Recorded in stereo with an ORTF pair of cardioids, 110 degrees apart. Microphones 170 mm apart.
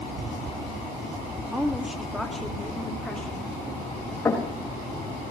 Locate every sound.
1.5 s a woman speaking: 5° right, 1.5 m; by 3.5 s 10° left, 2.5 m
4.2 s knocking: 15° left, 4.5 m